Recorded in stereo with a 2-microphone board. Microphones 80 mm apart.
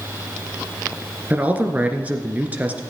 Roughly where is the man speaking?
Centre.